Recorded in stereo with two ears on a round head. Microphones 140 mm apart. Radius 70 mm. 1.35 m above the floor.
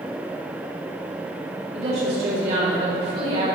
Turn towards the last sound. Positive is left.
turn(degrees=-45)  # may be behind; listen again after turning